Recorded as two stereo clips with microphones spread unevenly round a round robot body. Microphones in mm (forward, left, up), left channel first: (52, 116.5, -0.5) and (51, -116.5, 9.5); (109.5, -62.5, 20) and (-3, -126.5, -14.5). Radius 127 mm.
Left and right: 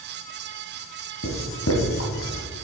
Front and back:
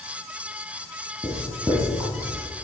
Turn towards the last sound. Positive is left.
turn(degrees=130)